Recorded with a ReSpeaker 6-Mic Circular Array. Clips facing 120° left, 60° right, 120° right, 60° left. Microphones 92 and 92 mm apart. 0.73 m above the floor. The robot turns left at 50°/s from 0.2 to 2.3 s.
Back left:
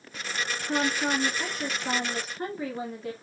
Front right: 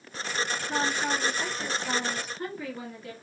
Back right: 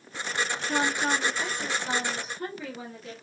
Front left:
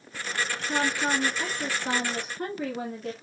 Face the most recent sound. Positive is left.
turn(degrees=65)